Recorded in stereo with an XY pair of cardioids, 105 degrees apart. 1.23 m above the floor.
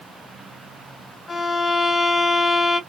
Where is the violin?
25° left, 2.0 m.